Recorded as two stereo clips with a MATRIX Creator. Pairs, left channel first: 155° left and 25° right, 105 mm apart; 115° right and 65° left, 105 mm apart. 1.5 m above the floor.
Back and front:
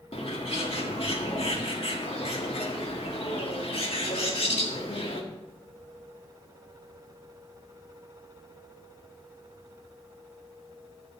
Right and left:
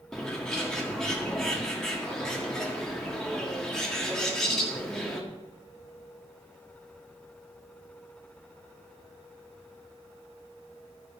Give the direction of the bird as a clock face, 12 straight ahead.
7 o'clock.